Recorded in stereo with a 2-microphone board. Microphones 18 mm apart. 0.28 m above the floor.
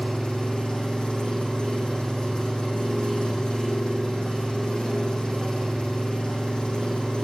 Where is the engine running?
70° left (ahead or behind), 6 m.